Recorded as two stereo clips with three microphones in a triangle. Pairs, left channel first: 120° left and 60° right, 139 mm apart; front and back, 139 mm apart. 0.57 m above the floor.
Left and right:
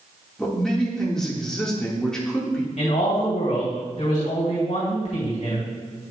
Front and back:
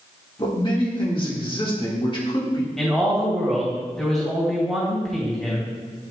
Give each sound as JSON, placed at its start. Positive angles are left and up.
{"t": 0.4, "sound": "a man speaking", "azimuth_deg": 35, "distance_m": 1.6}
{"t": 2.8, "sound": "a man speaking", "azimuth_deg": 85, "distance_m": 2.5}